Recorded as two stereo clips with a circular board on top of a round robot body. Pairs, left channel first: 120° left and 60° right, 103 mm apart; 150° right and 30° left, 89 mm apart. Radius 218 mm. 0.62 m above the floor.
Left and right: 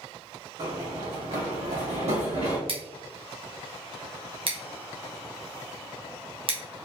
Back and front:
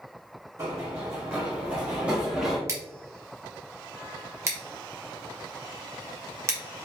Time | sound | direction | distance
0.6 | running footsteps | 25° right | 2.5 m
2.7 | scissors | 30° right | 1.3 m